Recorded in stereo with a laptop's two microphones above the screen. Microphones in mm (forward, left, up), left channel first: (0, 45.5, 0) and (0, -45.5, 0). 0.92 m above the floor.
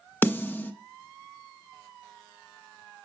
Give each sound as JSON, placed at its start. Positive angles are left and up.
{"t": 0.2, "sound": "a snare drum", "side_deg": 25, "distance_m": 0.5}